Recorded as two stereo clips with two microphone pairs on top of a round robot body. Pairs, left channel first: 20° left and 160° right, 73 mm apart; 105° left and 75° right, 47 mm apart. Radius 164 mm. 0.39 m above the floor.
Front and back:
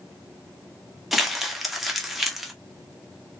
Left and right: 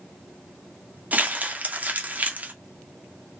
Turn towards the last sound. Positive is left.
turn(degrees=-80)